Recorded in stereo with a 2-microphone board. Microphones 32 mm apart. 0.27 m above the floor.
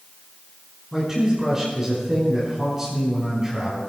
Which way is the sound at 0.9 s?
15° right (ahead or behind).